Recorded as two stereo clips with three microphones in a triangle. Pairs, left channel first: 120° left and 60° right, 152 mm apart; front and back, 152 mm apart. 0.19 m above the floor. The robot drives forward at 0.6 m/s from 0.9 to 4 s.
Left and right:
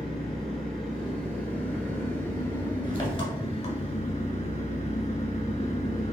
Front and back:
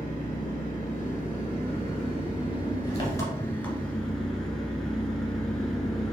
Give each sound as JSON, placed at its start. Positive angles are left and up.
{"t": 0.0, "sound": "an engine running", "azimuth_deg": 35, "distance_m": 2.5}